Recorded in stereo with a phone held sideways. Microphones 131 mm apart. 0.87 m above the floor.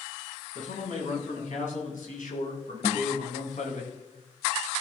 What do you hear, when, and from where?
0.6 s a man speaking: 80° left, 8 m; by 3.8 s 75° left (ahead or behind), 9.5 m
2.8 s a guitar: 60° left (ahead or behind), 2 m